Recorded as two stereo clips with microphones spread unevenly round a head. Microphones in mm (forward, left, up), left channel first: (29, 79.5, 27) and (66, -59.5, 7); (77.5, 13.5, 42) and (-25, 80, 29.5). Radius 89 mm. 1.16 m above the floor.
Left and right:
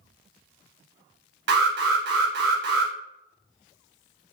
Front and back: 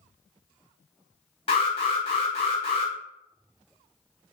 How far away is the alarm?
About 0.6 m.